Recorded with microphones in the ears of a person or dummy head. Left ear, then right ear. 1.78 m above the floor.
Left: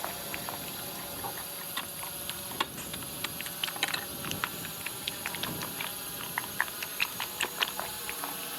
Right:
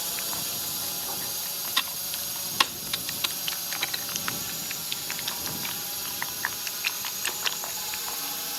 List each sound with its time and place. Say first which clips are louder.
0.0 s a drone: right 5 dB; 15° right (ahead or behind); by 8.6 s 10° right (ahead or behind)
1.8 s typing on a keyboard: right 10 dB; 40° right (ahead or behind)
3.8 s cutlery clinking: right 2 dB; 10° left (ahead or behind)